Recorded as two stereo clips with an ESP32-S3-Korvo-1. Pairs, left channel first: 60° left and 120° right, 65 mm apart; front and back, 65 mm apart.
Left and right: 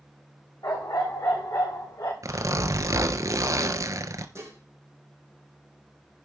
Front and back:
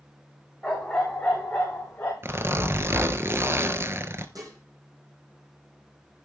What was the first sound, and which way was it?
A dog barking, 80° left.